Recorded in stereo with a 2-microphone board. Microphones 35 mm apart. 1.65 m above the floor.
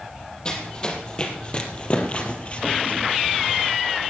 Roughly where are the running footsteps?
Left.